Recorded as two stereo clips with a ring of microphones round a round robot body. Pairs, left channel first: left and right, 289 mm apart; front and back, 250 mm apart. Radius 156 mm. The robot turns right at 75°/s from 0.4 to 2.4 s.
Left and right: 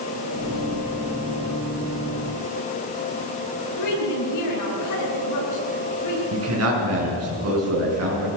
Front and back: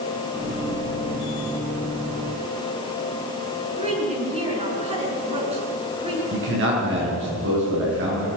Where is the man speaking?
130° right, 7 m.